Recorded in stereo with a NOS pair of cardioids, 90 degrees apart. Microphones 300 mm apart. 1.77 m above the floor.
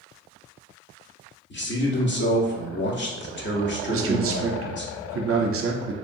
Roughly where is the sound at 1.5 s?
Ahead left.